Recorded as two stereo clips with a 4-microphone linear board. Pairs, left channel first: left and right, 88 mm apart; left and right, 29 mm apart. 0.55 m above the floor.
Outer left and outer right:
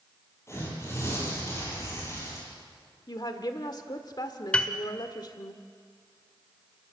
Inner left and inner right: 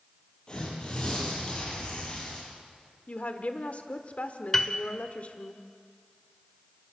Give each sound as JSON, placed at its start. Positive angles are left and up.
{"t": 0.5, "sound": "tearing paper", "side_deg": 30, "distance_m": 8.0}
{"t": 3.1, "sound": "a woman speaking", "side_deg": 50, "distance_m": 1.3}
{"t": 4.5, "sound": "a piano", "side_deg": 10, "distance_m": 1.4}